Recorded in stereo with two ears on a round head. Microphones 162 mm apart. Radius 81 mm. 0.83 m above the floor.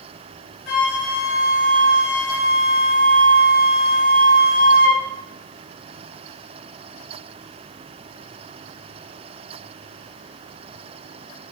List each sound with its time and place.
0.7 s a flute: 60° left (ahead or behind), 2 m